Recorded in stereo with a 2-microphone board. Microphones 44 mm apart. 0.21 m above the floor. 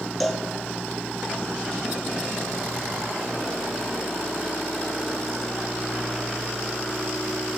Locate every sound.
0.2 s a cowbell: centre (ahead or behind), 3.5 m